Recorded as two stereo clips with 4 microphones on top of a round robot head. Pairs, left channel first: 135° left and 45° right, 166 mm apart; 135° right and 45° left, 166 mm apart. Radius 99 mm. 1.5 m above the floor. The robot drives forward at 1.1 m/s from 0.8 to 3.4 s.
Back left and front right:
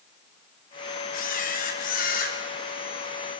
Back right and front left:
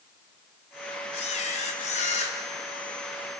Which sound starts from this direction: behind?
A camera shutter, at 1.1 s.